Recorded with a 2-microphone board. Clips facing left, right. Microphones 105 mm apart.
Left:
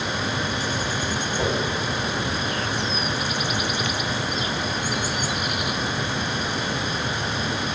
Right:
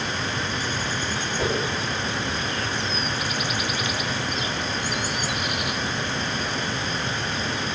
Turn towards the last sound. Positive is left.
turn(degrees=20)  # may be behind; listen again after turning